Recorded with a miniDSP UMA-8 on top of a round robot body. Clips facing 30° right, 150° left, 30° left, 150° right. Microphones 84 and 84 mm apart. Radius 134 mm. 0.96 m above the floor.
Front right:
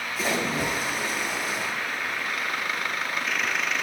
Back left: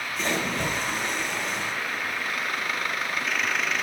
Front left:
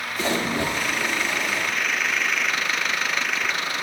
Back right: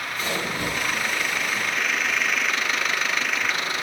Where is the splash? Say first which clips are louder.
Front right 1 dB, front left 5 dB; 55° left, 1.8 m.